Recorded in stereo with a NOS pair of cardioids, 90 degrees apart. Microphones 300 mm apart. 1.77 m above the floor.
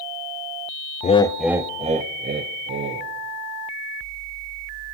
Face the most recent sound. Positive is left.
turn(degrees=-45)